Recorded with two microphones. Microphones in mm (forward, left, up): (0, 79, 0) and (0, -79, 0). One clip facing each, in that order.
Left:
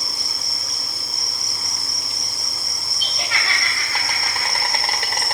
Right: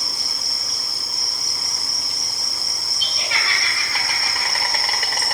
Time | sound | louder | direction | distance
0.0 | an insect | even | 25° left (ahead or behind) | 2.0 m
3.0 | laughter | left 1 dB | 55° left (ahead or behind) | 6.5 m